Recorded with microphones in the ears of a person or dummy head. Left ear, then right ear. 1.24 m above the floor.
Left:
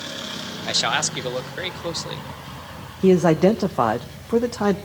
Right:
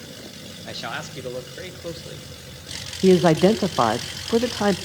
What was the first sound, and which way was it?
A man speaking, 35° left (ahead or behind).